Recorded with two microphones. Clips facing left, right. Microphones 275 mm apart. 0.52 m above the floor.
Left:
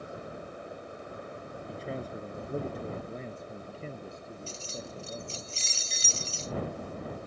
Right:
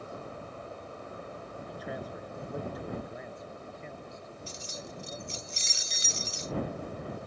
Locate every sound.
1.7 s a man speaking: 30° left (ahead or behind); by 5.4 s 40° left (ahead or behind)
4.5 s keys jangling: 20° right (ahead or behind)